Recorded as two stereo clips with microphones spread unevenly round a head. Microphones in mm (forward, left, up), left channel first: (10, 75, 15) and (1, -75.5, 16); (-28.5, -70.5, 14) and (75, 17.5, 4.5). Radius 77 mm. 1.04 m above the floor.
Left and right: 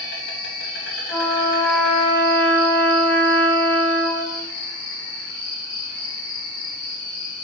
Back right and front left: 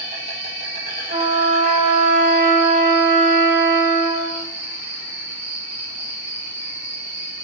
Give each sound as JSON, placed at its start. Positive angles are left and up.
{"t": 0.0, "sound": "an insect", "azimuth_deg": 85, "distance_m": 3.5}
{"t": 1.1, "sound": "a trumpet", "azimuth_deg": 10, "distance_m": 4.5}